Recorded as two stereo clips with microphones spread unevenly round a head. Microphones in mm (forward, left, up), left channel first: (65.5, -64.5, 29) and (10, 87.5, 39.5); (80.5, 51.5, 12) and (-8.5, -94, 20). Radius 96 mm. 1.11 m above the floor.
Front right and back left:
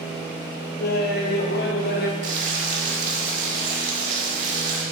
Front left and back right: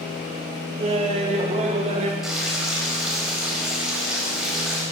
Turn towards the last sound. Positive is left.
turn(degrees=155)